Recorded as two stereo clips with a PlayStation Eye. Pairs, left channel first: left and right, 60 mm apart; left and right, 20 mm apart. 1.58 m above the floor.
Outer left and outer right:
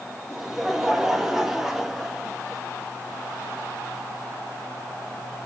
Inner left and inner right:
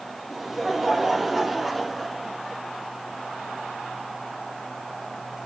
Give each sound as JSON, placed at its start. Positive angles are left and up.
{"t": 0.3, "sound": "laughter", "side_deg": -5, "distance_m": 2.5}